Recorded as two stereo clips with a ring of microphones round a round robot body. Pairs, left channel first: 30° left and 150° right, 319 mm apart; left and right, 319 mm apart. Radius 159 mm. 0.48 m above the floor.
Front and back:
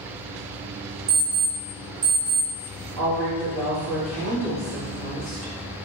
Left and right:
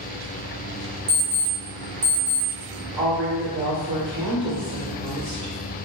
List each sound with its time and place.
1.1 s an alarm clock: 95° right, 1.1 m
3.0 s a woman speaking: 55° right, 1.3 m